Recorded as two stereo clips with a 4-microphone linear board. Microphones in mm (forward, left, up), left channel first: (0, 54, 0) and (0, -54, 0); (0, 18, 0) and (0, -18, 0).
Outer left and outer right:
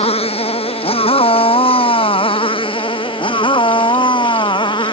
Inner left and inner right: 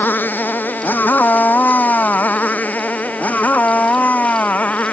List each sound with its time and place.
0.0 s a motorcycle: 70° left (ahead or behind); by 4.9 s 45° left (ahead or behind)